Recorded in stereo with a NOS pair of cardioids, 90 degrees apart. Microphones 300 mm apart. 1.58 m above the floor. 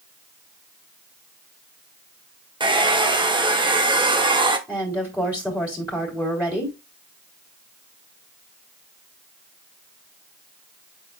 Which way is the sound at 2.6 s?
15° right.